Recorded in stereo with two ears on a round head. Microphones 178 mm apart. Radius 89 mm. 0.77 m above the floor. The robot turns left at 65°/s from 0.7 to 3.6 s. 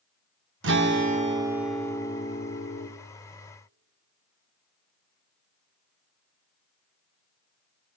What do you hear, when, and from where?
0.6 s a guitar: 115° right, 0.8 m; by 2.9 s 105° left, 0.8 m